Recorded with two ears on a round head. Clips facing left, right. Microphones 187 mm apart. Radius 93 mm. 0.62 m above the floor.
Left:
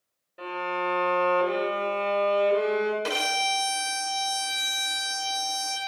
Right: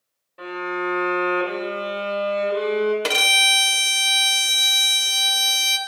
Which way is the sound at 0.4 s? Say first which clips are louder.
Right 4 dB; 10° left (ahead or behind).